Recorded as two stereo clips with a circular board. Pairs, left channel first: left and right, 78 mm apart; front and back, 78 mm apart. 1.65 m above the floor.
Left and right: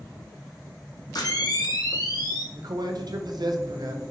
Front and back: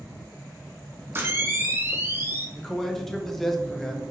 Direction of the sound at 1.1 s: 120° left.